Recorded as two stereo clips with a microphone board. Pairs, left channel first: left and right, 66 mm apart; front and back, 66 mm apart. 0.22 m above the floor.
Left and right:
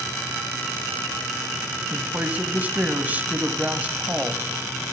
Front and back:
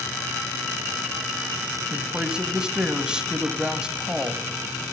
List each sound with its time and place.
1.9 s a woman speaking: 120° right, 1.2 m